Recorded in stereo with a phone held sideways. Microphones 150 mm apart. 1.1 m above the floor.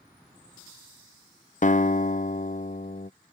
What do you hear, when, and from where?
1.6 s a guitar: 60° left (ahead or behind)